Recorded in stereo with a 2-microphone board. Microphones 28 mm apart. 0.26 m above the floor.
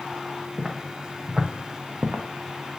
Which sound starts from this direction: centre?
Footsteps, at 0.6 s.